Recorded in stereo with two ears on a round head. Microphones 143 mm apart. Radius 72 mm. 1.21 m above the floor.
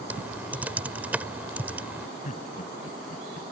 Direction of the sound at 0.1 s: 10° right (ahead or behind).